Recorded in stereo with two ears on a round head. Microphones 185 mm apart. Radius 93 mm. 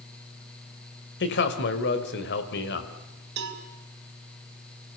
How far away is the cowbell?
About 2.5 m.